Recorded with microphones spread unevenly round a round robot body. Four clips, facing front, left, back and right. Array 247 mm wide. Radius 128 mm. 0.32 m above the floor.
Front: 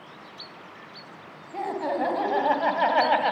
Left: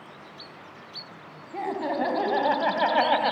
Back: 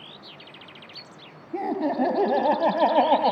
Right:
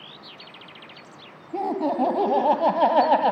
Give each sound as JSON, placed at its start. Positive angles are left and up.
{"t": 1.5, "sound": "laughter", "azimuth_deg": -140, "distance_m": 3.5}